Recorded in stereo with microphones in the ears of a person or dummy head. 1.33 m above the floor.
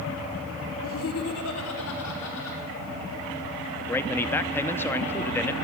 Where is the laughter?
65° left (ahead or behind), 0.8 m; by 2.6 s 80° left, 3 m.